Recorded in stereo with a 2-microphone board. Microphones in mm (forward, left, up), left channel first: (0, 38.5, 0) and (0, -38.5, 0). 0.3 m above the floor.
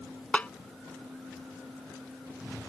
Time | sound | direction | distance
0.3 | a snare drum | 20° left (ahead or behind) | ?